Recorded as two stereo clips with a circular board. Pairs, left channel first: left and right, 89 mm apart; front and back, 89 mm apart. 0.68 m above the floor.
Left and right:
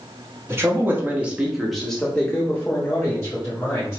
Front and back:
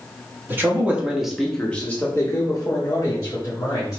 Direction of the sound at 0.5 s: 130° right.